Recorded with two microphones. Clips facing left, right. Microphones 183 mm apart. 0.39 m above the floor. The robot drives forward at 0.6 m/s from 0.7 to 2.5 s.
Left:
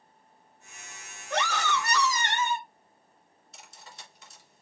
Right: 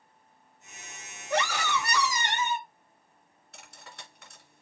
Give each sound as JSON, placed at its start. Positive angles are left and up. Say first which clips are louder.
{"t": 1.3, "sound": "a scream", "louder": "right 1 dB", "side_deg": -10, "distance_m": 2.0}
{"t": 3.5, "sound": "cutlery clinking", "louder": "right 1 dB", "side_deg": -60, "distance_m": 2.5}